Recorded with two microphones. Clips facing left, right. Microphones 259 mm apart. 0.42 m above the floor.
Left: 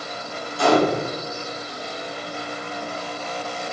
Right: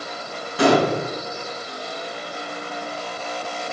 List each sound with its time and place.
0.6 s a gunshot: 85° right, 2 m